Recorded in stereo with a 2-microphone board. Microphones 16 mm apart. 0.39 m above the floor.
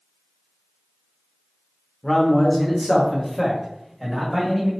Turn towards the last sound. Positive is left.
turn(degrees=-5)  # may be behind; listen again after turning